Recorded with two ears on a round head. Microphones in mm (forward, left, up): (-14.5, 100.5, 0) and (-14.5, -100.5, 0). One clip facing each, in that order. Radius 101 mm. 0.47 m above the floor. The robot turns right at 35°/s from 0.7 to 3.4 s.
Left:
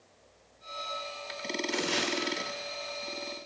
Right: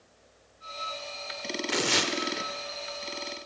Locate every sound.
1.7 s tearing paper: 60° right (ahead or behind), 0.6 m; by 2.1 s 50° right (ahead or behind), 0.6 m